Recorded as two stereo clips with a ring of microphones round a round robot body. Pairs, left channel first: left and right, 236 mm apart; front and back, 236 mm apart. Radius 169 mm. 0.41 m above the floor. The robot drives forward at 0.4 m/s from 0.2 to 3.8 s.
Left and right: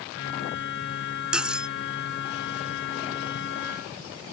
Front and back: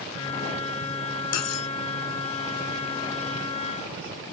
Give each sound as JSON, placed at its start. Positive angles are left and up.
{"t": 1.3, "sound": "cutlery clinking", "azimuth_deg": -5}